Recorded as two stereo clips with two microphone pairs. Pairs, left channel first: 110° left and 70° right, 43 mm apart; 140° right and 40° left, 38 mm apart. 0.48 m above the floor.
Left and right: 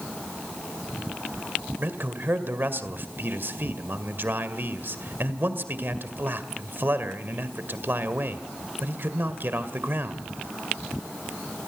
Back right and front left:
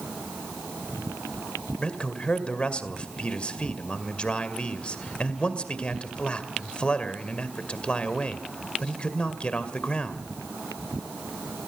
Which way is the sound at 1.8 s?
90° right.